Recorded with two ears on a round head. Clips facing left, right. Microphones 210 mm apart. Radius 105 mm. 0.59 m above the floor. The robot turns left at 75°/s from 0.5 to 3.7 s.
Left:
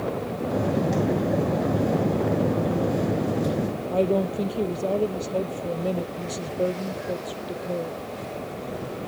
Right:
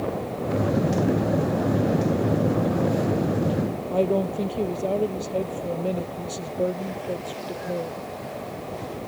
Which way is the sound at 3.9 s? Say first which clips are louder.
Even; centre (ahead or behind).